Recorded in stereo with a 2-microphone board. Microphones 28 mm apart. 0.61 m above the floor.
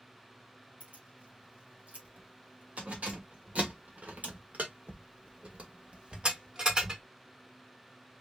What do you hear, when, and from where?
0.8 s keys jangling: 55° right (ahead or behind), 3 m; by 7.0 s 25° right (ahead or behind), 1.4 m